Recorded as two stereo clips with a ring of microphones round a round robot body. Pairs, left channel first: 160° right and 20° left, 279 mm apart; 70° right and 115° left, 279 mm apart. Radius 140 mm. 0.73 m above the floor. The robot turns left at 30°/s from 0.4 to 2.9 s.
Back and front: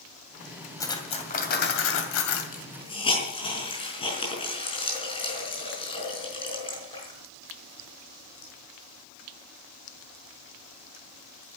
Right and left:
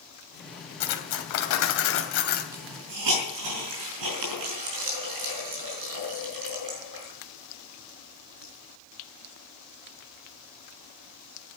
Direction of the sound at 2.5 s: 140° left.